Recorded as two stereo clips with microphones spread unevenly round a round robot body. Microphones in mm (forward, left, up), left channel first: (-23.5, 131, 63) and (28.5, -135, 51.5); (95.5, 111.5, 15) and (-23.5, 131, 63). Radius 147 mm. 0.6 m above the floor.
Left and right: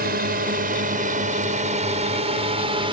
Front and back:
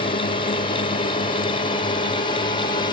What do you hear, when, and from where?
0.0 s a drone: 25° right; by 2.9 s 10° right